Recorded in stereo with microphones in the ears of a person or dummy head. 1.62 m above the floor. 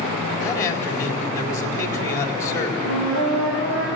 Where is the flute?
75° right (ahead or behind), 8.5 m.